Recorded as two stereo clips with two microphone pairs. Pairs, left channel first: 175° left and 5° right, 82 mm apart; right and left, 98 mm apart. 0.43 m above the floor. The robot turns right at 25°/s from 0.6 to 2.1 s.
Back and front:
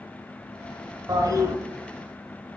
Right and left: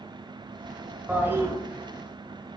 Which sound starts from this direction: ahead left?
A toilet flushing, at 1.1 s.